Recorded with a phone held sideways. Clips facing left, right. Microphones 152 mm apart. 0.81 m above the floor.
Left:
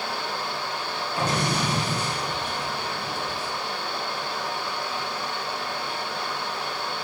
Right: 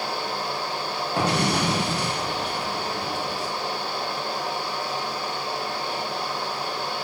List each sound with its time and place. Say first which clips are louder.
0.0 s a fan: right 2 dB; 35° right (ahead or behind), 1.5 m
1.2 s an explosion: right 3 dB; 70° right (ahead or behind), 1.4 m